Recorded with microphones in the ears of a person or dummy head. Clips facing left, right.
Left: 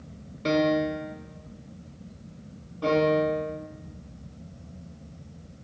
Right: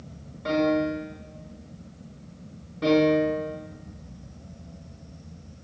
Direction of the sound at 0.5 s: 40° left (ahead or behind).